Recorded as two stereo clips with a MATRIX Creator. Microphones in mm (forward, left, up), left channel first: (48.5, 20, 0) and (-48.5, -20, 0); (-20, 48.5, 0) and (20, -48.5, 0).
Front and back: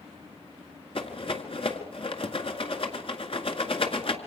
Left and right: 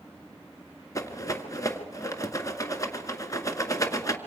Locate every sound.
0.9 s a rattle: 55° left, 1.9 m